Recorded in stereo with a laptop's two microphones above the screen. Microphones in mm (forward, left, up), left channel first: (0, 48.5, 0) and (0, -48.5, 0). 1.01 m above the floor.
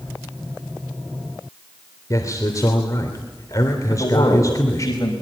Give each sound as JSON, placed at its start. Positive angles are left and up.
{"t": 2.1, "sound": "a man speaking", "side_deg": 35, "distance_m": 3.0}
{"t": 3.9, "sound": "a man speaking", "side_deg": 45, "distance_m": 5.5}